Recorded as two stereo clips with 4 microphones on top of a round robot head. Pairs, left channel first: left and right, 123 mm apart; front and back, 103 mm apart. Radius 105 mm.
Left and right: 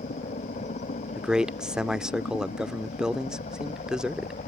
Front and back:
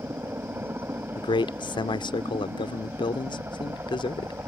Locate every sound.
0.0 s a helicopter: 110° left
1.1 s a man speaking: 5° right